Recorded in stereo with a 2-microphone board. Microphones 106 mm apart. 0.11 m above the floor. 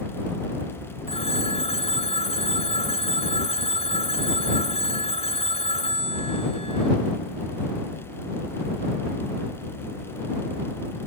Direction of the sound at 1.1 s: 70° left (ahead or behind).